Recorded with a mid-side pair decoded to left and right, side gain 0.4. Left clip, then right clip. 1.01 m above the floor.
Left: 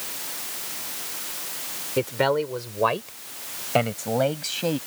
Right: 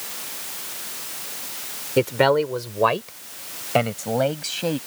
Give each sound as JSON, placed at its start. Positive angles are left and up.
{"t": 2.0, "sound": "a man speaking", "azimuth_deg": -45}